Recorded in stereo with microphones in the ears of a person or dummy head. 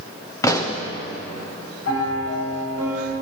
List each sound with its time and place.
0.4 s a pop: 15° left (ahead or behind), 0.8 m
1.9 s a piano: 85° left, 5.5 m